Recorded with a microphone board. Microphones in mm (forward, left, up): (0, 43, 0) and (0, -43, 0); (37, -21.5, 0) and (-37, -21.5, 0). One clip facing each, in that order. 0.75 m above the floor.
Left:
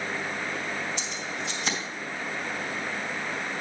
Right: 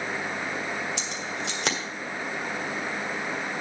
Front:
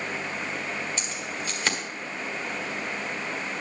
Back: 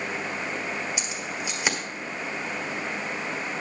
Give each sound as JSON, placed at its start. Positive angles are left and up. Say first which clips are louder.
{"t": 1.0, "sound": "keys jangling", "louder": "right 1 dB, back 1 dB", "azimuth_deg": -100, "distance_m": 1.6}